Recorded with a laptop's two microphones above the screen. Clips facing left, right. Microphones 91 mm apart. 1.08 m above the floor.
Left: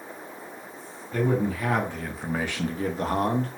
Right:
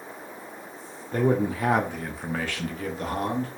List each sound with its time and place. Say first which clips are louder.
1.1 s a man speaking: right 2 dB; 35° right (ahead or behind), 0.8 m; by 3.5 s 50° left (ahead or behind), 0.7 m